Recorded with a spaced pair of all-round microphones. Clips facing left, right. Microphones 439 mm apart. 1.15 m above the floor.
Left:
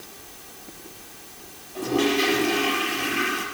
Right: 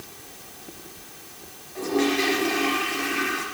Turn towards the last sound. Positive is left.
turn(degrees=50)  # may be behind; listen again after turning